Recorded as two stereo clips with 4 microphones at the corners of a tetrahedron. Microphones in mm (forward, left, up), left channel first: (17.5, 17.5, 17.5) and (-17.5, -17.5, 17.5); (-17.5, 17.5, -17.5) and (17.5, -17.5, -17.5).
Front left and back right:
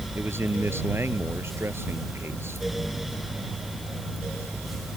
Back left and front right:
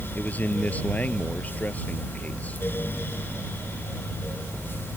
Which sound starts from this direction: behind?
A man speaking, at 0.1 s.